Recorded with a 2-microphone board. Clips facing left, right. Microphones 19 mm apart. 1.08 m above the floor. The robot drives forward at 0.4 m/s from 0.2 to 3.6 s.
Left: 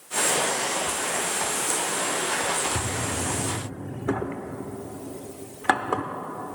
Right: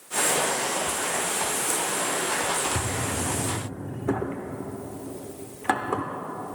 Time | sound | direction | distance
2.8 | a drawer | 30° left (ahead or behind) | 0.7 m